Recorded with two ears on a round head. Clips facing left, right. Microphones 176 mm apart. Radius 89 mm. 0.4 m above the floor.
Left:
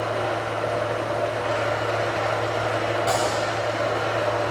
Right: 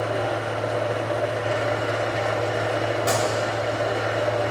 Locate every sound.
0.0 s an engine running: 15° right (ahead or behind), 0.8 m
3.1 s a gunshot: 30° right (ahead or behind), 0.8 m